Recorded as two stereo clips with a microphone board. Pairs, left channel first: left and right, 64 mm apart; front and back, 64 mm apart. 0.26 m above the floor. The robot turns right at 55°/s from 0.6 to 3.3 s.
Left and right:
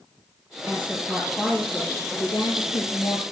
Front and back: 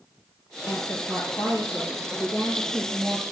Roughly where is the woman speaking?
Ahead right.